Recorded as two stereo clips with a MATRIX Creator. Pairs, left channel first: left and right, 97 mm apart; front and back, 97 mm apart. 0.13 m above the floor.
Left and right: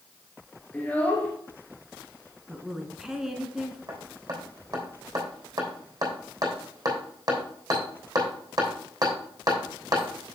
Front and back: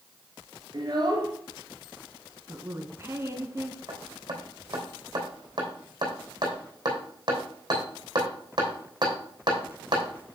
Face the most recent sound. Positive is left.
turn(degrees=-140)